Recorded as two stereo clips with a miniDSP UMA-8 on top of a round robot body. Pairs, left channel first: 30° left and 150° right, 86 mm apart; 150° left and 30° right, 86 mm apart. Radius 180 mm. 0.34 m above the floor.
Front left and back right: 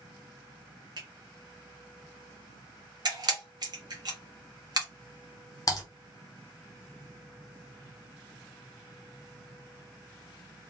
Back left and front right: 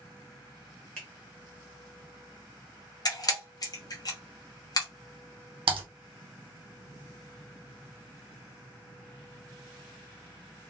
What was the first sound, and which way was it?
A finger snap, 135° right.